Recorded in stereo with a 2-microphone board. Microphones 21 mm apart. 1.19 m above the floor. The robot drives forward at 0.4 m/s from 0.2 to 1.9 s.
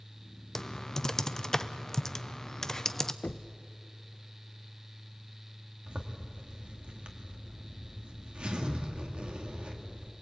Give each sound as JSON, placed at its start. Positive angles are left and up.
{"t": 0.6, "sound": "typing on a keyboard", "side_deg": 25, "distance_m": 0.6}
{"t": 3.2, "sound": "knocking", "side_deg": 70, "distance_m": 0.6}
{"t": 5.9, "sound": "a zipper", "side_deg": -60, "distance_m": 2.0}